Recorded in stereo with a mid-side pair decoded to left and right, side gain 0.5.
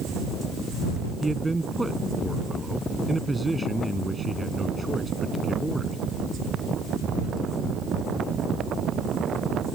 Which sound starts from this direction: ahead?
A man speaking, at 1.2 s.